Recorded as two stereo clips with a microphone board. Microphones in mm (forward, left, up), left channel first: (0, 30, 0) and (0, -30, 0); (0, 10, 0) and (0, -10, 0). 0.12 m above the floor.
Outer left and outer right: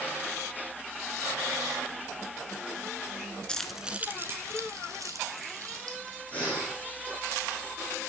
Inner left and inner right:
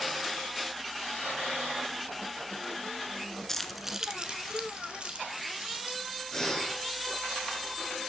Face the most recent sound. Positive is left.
turn(degrees=25)  # may be behind; listen again after turning